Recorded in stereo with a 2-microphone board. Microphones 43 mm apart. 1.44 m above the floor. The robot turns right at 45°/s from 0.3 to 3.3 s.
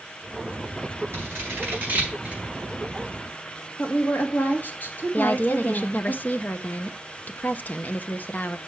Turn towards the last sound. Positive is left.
turn(degrees=45)  # may be behind; listen again after turning